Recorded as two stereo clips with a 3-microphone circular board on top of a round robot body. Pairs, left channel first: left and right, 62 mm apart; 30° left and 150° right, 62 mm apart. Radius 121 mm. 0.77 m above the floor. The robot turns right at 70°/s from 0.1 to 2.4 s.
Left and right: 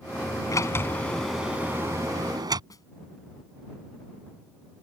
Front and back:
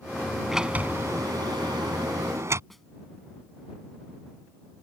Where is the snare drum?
120° left.